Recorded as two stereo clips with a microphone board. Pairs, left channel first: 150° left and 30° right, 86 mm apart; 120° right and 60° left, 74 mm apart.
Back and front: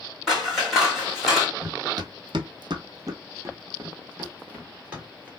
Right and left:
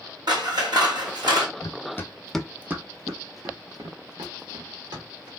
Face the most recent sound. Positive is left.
turn(degrees=45)